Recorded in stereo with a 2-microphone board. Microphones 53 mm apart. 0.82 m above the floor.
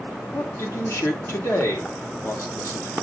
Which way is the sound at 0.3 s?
60° left (ahead or behind).